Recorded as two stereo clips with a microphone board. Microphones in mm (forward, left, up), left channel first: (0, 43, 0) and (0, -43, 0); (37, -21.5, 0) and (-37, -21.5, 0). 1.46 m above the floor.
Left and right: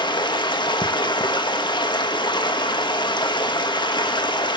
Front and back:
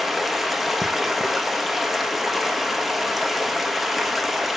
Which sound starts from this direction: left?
Running water, at 0.0 s.